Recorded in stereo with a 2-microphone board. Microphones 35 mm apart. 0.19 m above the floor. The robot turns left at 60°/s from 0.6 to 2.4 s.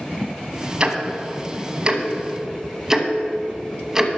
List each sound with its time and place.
0.8 s ticking: 25° right (ahead or behind), 0.9 m; by 4.1 s 15° right (ahead or behind), 0.9 m